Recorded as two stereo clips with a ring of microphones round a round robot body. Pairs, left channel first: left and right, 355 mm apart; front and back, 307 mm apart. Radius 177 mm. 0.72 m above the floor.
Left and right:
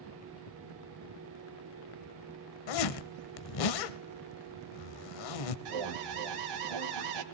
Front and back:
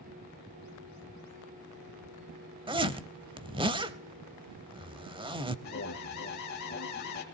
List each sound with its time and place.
2.7 s a zipper: 105° left, 0.8 m
5.7 s an alarm: 65° right, 2.0 m